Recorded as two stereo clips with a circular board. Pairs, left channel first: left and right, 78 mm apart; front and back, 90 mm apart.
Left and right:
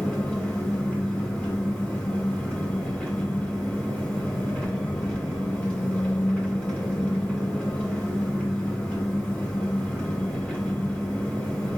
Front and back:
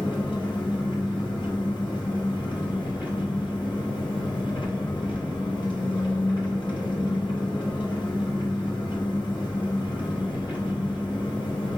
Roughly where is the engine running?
Ahead.